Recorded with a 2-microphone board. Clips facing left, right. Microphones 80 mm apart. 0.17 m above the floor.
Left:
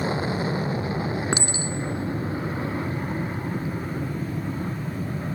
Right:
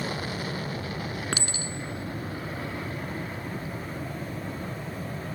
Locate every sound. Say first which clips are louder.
0.0 s an aircraft: left 7 dB; 25° left (ahead or behind)
1.3 s a clink: left 6 dB; 25° left (ahead or behind)